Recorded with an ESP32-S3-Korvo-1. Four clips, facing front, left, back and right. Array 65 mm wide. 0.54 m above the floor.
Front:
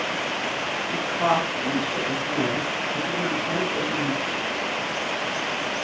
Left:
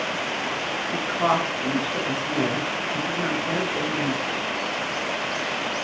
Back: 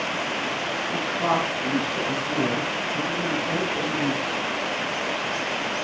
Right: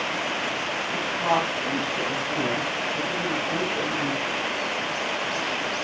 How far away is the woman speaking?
About 7 m.